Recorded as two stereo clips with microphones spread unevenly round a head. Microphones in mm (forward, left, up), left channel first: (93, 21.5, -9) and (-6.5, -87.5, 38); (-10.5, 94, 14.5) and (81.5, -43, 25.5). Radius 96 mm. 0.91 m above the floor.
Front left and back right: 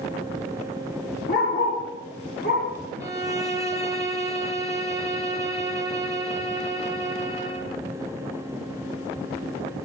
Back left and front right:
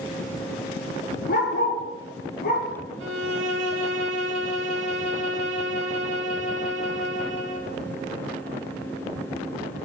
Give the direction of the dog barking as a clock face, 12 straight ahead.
9 o'clock.